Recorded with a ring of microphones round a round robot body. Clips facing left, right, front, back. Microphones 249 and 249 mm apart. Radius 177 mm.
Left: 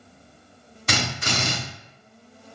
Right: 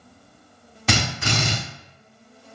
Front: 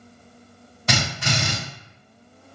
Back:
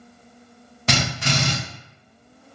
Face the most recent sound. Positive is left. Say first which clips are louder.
# right 3 dB, back 2 dB
turn(degrees=-135)